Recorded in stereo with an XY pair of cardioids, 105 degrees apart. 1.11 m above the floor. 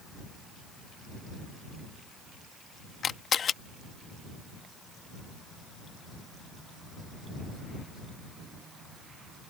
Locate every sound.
3.0 s a camera shutter: 50° left